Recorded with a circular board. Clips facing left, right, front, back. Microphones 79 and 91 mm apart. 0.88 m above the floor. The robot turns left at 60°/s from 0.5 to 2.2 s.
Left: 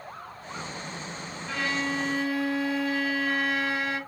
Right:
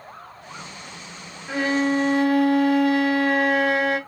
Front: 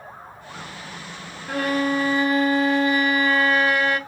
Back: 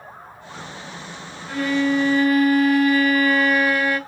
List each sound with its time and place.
1.5 s a violin: 25° right, 0.9 m; by 4.0 s 65° right, 0.9 m